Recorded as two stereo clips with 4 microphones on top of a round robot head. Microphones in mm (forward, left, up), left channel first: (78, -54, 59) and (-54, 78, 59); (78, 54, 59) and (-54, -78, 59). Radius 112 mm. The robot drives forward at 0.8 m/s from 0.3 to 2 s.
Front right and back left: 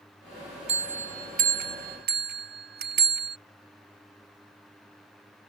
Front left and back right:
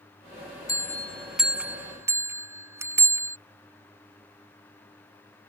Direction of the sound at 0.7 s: 110° left.